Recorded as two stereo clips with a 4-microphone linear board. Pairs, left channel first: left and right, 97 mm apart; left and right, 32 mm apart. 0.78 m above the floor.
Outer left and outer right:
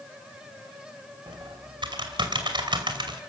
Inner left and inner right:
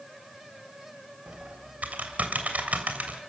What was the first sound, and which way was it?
Typing on a keyboard, 55° right (ahead or behind).